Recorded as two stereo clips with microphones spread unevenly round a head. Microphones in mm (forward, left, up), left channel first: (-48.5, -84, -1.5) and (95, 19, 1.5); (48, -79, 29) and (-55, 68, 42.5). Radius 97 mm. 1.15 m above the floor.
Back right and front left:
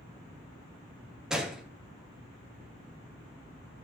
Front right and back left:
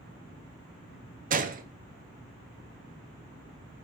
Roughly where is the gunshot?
Behind left.